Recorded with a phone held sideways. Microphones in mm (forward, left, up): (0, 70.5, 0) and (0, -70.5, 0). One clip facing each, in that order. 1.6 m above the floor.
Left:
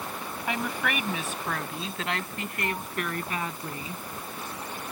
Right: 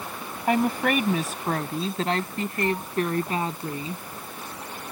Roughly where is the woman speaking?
Right.